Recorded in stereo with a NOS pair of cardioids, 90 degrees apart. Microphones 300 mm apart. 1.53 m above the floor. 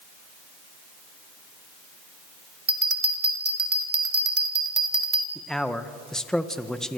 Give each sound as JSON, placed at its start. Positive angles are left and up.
{"t": 2.7, "sound": "a bell", "azimuth_deg": -30, "distance_m": 3.0}
{"t": 5.3, "sound": "a man speaking", "azimuth_deg": 0, "distance_m": 1.6}